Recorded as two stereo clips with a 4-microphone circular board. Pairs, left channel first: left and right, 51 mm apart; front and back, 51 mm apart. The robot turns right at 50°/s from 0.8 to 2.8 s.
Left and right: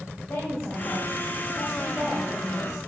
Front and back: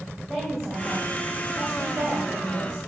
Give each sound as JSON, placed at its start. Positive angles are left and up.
{"t": 0.3, "sound": "a woman speaking", "azimuth_deg": 90, "distance_m": 2.5}